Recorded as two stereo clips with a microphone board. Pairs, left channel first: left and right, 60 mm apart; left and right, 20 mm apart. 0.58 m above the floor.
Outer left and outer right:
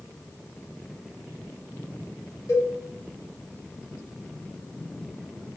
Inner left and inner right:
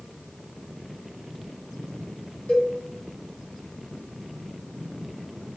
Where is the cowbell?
75° left (ahead or behind), 1.7 m.